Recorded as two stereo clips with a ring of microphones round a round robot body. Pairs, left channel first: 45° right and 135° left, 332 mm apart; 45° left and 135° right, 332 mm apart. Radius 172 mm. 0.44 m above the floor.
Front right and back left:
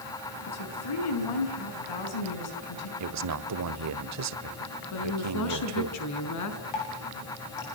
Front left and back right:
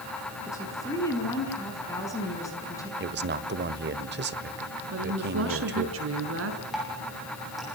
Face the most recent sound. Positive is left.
turn(degrees=-45)